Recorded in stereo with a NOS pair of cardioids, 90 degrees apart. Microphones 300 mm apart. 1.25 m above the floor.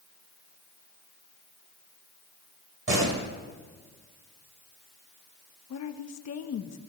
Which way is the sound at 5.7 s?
60° left.